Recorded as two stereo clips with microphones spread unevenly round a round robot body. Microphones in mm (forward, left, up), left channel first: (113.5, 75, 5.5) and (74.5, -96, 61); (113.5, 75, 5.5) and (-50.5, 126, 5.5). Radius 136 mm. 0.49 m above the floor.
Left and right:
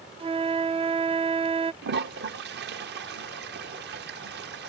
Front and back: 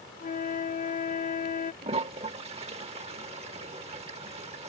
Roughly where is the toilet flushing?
Behind right.